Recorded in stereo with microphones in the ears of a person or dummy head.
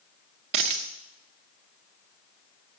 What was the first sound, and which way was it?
A dropped coin, 35° right (ahead or behind).